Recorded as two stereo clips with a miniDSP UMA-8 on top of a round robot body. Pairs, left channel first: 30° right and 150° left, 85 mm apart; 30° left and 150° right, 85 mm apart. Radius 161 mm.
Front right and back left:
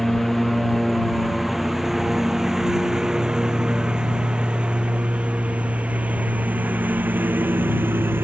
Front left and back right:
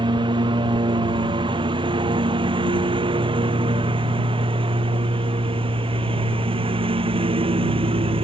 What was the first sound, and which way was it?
A lawn mower, 120° right.